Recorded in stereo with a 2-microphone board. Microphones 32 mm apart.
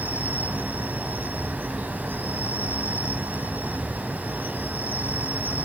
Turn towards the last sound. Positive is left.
turn(degrees=-70)  # may be behind; listen again after turning